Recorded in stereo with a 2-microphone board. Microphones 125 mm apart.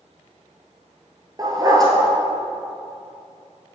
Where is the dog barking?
30° right (ahead or behind), 1.4 m.